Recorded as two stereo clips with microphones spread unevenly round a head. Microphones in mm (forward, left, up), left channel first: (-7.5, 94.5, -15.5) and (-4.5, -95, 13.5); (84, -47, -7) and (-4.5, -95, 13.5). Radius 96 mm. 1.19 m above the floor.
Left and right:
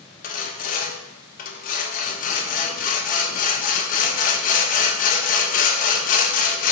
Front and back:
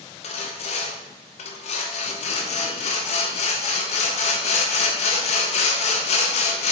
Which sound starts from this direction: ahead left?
Sawing, at 0.2 s.